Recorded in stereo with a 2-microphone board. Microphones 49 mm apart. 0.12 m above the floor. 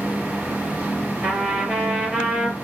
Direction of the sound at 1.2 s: 20° right (ahead or behind).